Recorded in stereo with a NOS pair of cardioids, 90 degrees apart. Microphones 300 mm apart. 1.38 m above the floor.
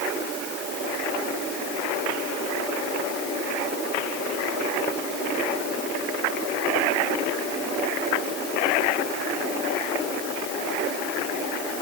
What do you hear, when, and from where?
Only background noise.